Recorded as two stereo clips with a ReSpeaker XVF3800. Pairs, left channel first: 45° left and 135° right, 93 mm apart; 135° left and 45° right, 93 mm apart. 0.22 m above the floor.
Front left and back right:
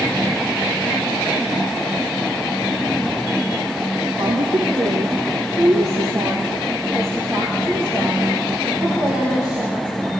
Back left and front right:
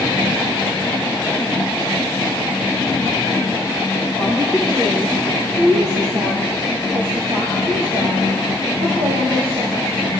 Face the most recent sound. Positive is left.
turn(degrees=-55)